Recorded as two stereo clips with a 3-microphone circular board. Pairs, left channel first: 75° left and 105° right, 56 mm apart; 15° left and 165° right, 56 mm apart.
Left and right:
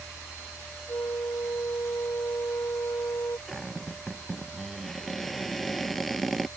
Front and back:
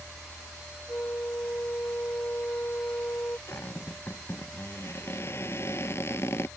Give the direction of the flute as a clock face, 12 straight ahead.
10 o'clock.